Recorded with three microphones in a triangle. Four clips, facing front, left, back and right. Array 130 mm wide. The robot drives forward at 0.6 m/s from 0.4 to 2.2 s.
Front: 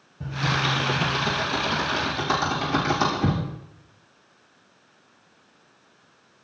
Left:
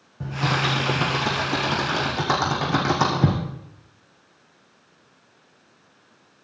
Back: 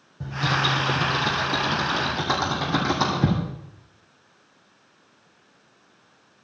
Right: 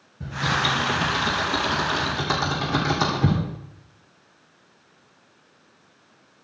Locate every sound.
0.2 s typing on a keyboard: 105° left, 5.5 m; by 3.4 s 115° left, 6 m